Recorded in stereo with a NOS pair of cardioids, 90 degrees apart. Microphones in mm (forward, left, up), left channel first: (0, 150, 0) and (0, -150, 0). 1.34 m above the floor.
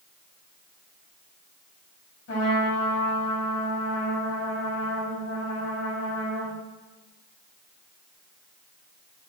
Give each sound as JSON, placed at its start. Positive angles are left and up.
{"t": 2.3, "sound": "a trumpet", "azimuth_deg": 55, "distance_m": 7.5}